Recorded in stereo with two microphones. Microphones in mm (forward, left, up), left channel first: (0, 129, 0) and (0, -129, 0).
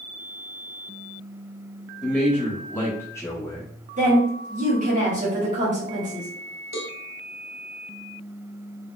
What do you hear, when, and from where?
2.0 s a man speaking: 5° left (ahead or behind), 1.1 m; by 3.7 s 10° left (ahead or behind), 1.1 m
4.0 s a woman speaking: 30° right (ahead or behind), 1.8 m
6.7 s a cowbell: 80° left, 0.6 m